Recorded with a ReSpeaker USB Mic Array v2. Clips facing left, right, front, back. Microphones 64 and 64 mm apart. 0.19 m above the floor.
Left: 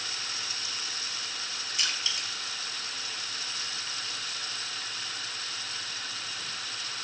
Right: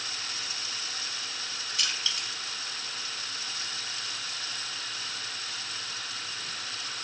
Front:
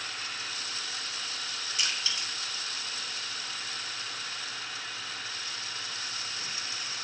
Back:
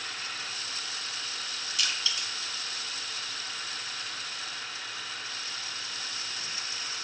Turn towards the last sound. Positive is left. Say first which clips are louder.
# even, back 1 dB
turn(degrees=35)